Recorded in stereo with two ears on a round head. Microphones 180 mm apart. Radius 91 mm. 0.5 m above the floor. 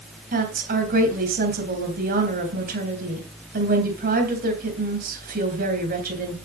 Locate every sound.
0.3 s a woman speaking: 50° right (ahead or behind), 3.5 m